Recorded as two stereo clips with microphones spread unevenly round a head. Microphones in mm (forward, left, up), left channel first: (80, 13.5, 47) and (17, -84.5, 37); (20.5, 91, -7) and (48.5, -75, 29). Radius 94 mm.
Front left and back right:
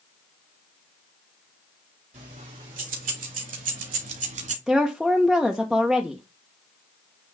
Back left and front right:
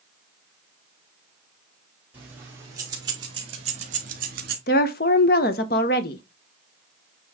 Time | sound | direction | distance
2.1 | keys jangling | 160° right | 2.5 m
4.7 | a woman speaking | 145° left | 0.8 m